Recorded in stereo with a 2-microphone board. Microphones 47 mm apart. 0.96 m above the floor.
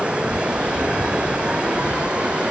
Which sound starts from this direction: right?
Running water, at 0.0 s.